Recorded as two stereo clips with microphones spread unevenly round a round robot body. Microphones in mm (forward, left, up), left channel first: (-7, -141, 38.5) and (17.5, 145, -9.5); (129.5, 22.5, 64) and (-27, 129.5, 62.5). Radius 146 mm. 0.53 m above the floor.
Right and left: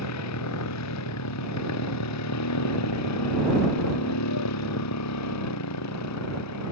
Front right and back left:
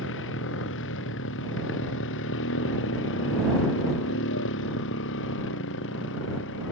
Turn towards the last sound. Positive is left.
turn(degrees=-65)